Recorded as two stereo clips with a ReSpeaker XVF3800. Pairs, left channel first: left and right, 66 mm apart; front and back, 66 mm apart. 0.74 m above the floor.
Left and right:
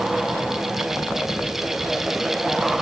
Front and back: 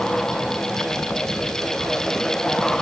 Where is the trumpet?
No trumpet in this recording.